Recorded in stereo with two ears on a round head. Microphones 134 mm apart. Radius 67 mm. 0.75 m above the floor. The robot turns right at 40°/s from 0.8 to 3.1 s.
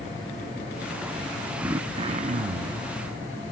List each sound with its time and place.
1.6 s throat clearing: 165° right, 0.5 m; by 2.9 s 110° right, 0.5 m